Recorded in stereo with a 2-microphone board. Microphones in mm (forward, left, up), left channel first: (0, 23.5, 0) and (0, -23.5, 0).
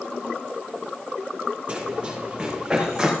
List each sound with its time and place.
1.7 s running footsteps: 30° right (ahead or behind), 6.5 m; by 3.1 s 15° right (ahead or behind), 6 m